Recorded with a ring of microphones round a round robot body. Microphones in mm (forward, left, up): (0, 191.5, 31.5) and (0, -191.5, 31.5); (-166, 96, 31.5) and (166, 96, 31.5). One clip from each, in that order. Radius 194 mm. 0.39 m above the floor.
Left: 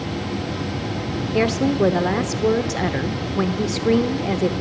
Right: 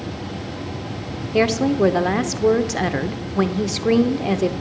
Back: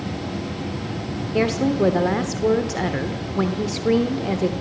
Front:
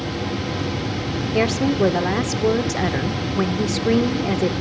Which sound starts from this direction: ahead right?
A woman speaking, at 1.3 s.